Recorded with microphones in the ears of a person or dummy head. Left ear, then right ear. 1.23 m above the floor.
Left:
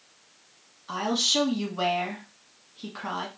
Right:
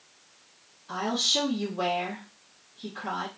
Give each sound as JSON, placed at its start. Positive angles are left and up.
{"t": 0.9, "sound": "a woman speaking", "side_deg": 60, "distance_m": 1.2}